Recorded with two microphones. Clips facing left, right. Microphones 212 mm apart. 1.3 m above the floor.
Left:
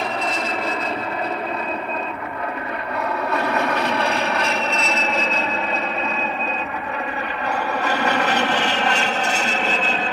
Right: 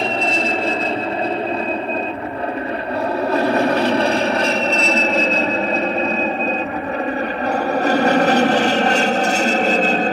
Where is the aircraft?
25° right (ahead or behind); by 10.1 s 40° right (ahead or behind).